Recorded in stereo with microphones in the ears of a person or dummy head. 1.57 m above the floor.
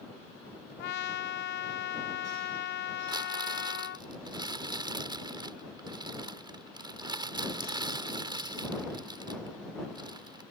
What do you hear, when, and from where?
0.8 s a trumpet: 65° left (ahead or behind)
3.1 s crumpling: 25° right (ahead or behind)